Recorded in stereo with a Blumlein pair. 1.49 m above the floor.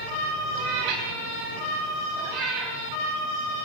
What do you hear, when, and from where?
0.6 s a cat meowing: 45° right, 4 m; by 2.8 s 25° right, 4 m